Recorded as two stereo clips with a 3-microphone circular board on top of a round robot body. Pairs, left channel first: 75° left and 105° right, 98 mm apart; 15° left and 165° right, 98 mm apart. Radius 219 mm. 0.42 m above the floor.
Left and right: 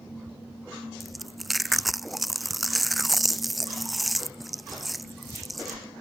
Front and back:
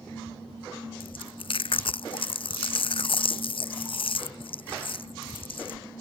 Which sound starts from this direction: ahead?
Chewing, at 1.0 s.